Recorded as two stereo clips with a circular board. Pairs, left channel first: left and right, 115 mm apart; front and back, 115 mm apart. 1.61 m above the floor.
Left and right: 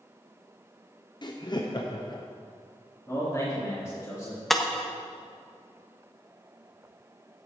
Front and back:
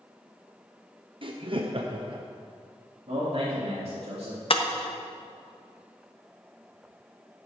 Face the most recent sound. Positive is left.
turn(degrees=0)